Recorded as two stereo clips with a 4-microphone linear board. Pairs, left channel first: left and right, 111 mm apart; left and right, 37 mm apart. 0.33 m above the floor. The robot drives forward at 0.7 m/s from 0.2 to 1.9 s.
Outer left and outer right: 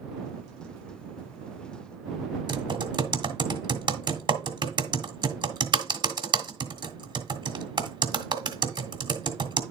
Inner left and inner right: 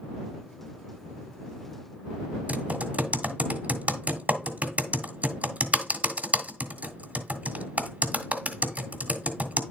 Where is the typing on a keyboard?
45° right (ahead or behind), 1.6 m.